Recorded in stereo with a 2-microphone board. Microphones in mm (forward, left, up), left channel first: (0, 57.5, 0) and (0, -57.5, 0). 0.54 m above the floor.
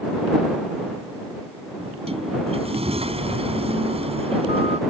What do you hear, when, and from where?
1.8 s a sliding door: 65° right (ahead or behind)